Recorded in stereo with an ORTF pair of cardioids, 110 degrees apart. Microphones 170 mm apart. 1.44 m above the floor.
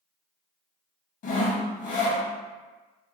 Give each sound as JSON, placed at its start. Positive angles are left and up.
{"t": 1.2, "sound": "sawing", "azimuth_deg": 50, "distance_m": 0.8}